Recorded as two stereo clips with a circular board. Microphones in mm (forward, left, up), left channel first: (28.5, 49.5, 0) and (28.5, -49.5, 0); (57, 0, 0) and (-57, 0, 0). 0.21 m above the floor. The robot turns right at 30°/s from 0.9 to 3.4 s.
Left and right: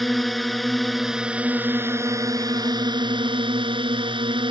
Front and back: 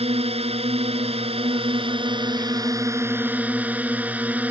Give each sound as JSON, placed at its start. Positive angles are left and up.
{"t": 0.0, "sound": "a drone", "azimuth_deg": 180}